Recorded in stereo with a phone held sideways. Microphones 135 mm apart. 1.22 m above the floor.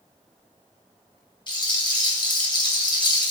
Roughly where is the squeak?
I don't hear a squeak.